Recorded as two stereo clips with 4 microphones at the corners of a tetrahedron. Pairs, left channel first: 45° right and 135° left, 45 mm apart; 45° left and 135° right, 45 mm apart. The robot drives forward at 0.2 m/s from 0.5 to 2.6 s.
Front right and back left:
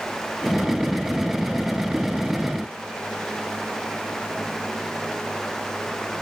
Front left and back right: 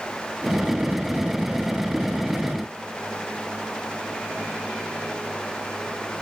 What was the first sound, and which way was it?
Only background noise.